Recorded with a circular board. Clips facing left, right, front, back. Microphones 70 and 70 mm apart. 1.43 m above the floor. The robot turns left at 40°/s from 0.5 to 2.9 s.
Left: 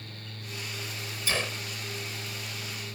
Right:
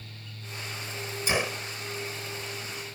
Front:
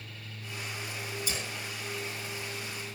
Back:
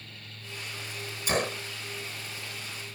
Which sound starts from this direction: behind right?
A gunshot, at 1.3 s.